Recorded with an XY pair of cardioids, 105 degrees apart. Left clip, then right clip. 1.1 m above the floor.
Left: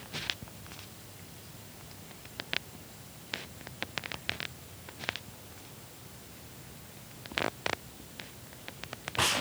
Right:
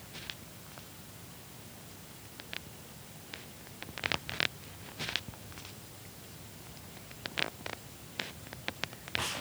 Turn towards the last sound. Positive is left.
No sound to turn to.